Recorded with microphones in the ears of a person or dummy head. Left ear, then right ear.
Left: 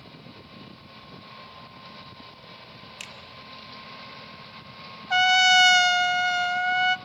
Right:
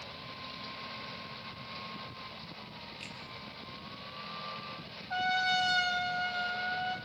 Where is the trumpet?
65° left (ahead or behind), 0.7 m.